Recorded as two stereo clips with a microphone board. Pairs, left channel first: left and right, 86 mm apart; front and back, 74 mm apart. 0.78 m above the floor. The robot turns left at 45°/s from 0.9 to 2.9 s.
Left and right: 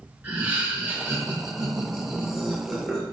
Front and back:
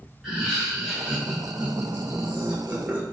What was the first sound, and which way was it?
Laughter, 105° right.